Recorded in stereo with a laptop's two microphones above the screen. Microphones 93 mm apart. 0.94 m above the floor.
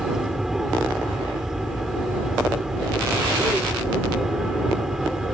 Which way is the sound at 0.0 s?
5° right (ahead or behind).